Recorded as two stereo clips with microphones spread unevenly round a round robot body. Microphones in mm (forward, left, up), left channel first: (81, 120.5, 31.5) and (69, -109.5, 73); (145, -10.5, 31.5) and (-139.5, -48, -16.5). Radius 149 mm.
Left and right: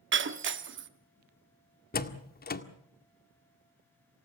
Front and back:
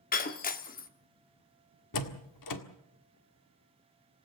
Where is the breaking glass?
55° right, 1.4 m.